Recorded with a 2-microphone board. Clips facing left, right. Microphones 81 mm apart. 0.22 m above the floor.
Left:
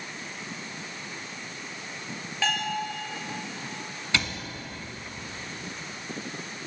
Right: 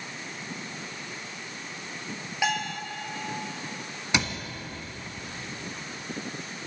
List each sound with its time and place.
2.4 s a bell: 15° right (ahead or behind), 3 m
4.1 s a cupboard door: 20° right (ahead or behind), 1.6 m